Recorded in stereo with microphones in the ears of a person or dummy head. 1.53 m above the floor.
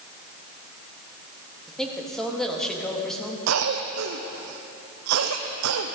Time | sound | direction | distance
1.7 | a woman speaking | 5° left (ahead or behind) | 2 m
3.5 | a cough | 80° right | 0.7 m